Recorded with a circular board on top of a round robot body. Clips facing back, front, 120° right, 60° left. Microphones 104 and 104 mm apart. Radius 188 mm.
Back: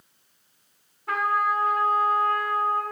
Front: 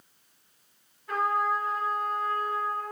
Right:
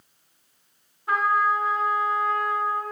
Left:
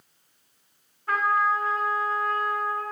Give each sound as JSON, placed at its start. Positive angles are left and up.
{"t": 1.1, "sound": "a trumpet", "azimuth_deg": 160, "distance_m": 3.5}